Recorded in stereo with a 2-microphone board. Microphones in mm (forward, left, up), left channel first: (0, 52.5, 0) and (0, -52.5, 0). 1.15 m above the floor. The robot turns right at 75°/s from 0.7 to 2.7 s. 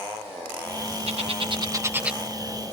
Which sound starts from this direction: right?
A bird, at 1.1 s.